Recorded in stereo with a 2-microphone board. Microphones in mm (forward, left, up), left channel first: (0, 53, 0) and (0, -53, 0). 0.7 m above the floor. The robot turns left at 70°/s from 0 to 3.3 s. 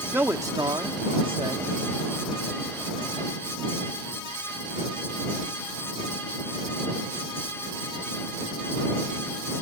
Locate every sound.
0.1 s a man speaking: 20° right; by 1.6 s 130° right